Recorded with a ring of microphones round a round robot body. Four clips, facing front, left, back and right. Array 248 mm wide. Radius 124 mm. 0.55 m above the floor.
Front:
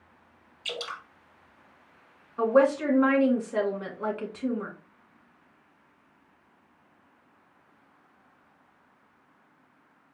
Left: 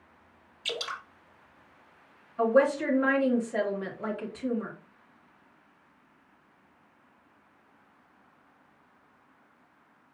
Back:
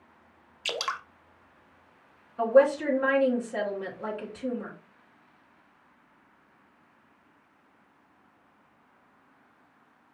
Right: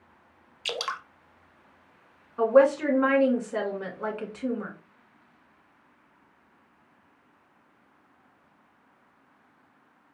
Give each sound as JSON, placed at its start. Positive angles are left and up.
{"t": 0.7, "sound": "dripping", "azimuth_deg": -140, "distance_m": 0.6}
{"t": 2.4, "sound": "a woman speaking", "azimuth_deg": -55, "distance_m": 2.5}